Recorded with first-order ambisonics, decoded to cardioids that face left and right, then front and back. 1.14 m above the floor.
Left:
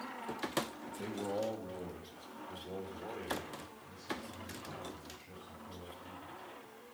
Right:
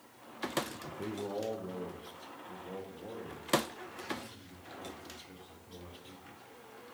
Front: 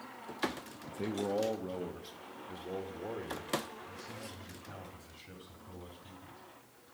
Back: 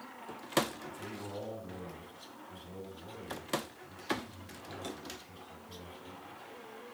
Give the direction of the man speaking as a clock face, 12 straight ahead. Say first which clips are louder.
Even, front 7 dB; 12 o'clock.